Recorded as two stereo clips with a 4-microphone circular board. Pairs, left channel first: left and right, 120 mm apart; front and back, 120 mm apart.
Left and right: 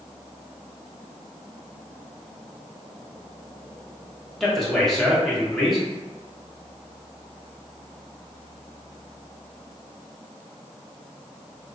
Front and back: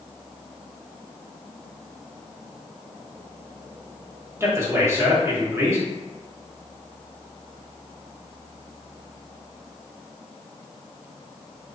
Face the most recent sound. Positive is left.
turn(degrees=170)